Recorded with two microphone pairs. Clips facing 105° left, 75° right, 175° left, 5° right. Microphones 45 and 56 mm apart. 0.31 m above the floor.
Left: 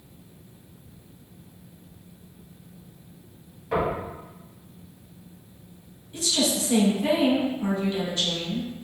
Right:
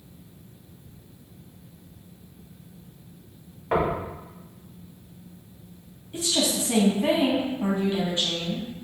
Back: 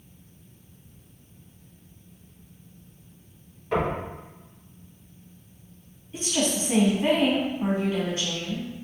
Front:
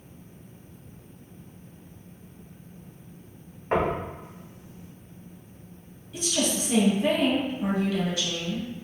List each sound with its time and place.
3.7 s knocking: 35° right, 1.1 m
6.1 s a woman speaking: 130° right, 1.9 m